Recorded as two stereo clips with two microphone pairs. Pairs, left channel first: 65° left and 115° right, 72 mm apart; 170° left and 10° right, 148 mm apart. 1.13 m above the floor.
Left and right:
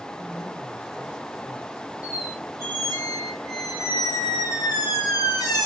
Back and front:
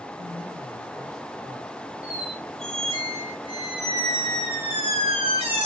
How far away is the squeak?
About 3.5 m.